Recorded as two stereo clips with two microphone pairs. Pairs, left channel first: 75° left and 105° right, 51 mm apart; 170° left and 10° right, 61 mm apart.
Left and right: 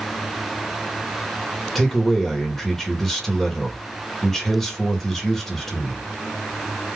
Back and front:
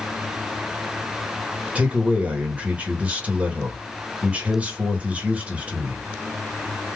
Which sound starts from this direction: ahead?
A man speaking, at 1.8 s.